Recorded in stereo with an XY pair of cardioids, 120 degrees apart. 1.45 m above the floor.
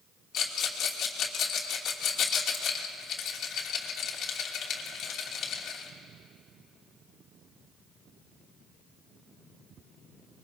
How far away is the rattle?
About 3 m.